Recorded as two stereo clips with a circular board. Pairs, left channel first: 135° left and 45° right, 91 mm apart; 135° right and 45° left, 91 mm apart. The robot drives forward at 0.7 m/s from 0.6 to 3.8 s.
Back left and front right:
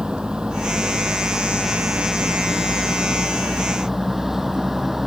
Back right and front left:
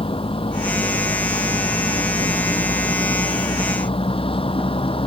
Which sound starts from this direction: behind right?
A vehicle, at 0.0 s.